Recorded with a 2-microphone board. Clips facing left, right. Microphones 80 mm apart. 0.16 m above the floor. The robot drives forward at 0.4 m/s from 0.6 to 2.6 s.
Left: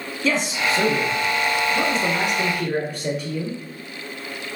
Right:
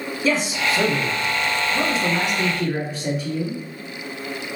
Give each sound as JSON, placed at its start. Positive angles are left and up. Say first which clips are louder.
{"t": 0.2, "sound": "a man speaking", "louder": "even", "side_deg": -5, "distance_m": 1.0}